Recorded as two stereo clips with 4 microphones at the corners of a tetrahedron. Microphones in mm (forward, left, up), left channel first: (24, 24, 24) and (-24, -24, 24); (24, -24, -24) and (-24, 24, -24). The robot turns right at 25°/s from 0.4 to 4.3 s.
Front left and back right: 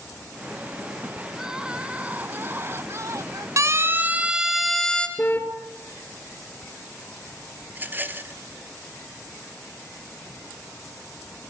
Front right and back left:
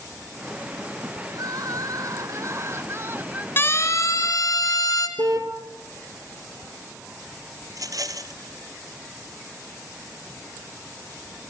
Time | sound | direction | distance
1.3 | crying | 140° left | 0.9 m
3.6 | a siren | 100° right | 3.5 m
5.2 | a car horn | 110° left | 2.5 m
7.7 | a rattle | 165° left | 1.5 m